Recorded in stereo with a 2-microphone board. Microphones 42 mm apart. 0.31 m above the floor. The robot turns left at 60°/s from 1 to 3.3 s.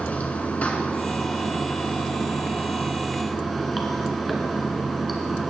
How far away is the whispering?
I don't hear whispering.